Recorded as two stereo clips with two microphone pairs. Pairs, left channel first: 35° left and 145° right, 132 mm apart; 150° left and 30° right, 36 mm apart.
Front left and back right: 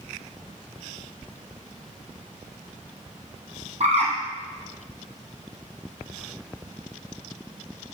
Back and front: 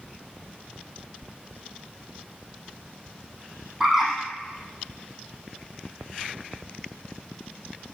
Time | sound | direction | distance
3.8 | a bird | 110° right | 3 m